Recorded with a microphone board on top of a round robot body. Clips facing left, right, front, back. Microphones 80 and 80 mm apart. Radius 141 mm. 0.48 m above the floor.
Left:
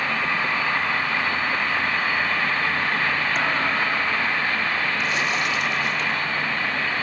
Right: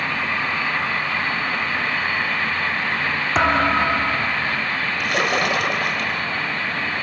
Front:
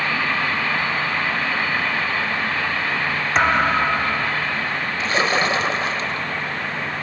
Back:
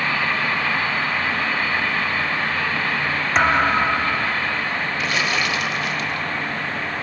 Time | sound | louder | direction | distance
3.4 | a thud | right 5 dB, even | 90° right | ?
5.0 | a splash | right 3 dB, front 5 dB | 60° right | ?